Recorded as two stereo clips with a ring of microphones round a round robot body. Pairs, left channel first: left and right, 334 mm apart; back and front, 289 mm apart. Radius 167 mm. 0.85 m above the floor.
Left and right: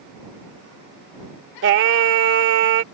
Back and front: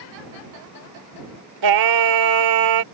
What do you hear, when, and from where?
1.6 s singing: 35° right